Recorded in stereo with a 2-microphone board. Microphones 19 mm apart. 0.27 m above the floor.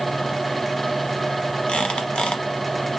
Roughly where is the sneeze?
No sneeze in this recording.